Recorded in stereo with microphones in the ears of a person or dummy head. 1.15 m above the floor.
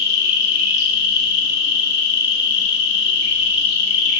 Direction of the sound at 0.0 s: 55° left (ahead or behind).